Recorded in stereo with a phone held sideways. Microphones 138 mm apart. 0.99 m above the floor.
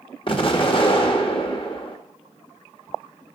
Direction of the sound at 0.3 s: 40° left (ahead or behind).